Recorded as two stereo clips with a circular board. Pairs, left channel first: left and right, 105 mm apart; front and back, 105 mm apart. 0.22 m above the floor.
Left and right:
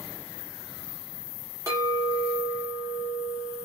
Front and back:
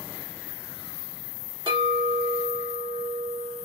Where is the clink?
145° right, 1.8 m.